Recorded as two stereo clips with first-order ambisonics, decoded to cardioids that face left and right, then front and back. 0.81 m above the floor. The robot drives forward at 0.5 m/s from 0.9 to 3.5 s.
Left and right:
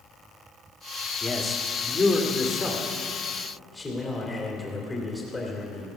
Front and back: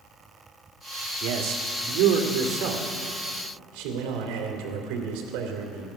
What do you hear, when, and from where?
1.2 s a man speaking: 170° left, 1.3 m; by 5.9 s 175° left, 2.5 m